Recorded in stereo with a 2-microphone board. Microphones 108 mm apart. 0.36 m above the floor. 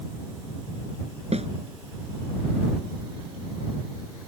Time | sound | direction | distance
1.3 | a snare drum | 80° right | ?